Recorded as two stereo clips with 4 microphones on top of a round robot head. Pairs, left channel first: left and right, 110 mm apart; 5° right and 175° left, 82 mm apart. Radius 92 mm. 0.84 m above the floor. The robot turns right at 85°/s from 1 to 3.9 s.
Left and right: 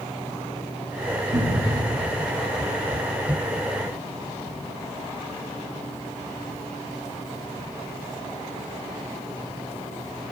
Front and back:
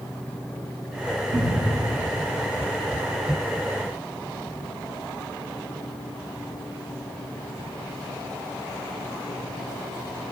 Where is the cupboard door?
155° right, 2 m; by 1.9 s 110° right, 2 m.